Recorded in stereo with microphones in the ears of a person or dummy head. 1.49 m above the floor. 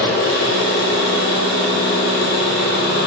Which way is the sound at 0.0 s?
55° left (ahead or behind).